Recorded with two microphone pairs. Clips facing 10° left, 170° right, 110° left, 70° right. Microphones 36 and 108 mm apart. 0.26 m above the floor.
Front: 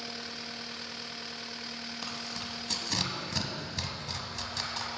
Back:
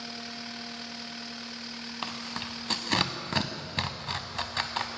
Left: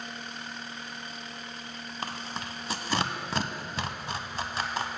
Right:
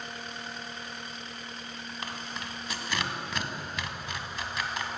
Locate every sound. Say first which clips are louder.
2.0 s tearing paper: back 5 dB, left 3 dB; 160° left, 0.5 m